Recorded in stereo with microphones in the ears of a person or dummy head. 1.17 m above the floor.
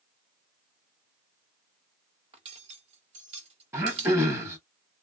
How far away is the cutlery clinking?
About 1.0 m.